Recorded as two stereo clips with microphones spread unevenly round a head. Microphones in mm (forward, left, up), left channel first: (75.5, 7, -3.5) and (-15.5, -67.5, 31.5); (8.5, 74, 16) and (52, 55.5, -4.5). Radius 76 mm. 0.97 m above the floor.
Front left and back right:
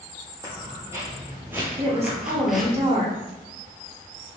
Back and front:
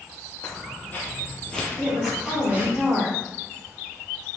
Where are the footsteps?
160° left, 1.7 m; by 2.8 s 90° right, 1.0 m.